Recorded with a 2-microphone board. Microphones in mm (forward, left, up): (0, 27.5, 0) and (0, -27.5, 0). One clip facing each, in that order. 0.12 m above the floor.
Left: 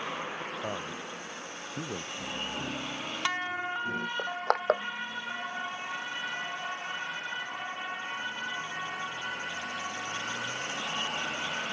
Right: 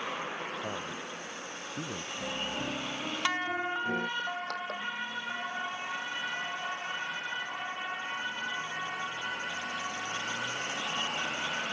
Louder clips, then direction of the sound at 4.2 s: Left 5 dB; 75° left (ahead or behind).